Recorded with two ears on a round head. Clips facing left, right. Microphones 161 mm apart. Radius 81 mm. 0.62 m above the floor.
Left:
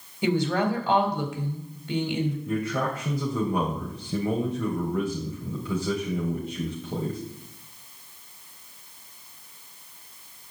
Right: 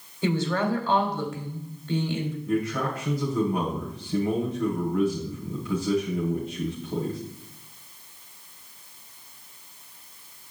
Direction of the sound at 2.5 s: 80° left.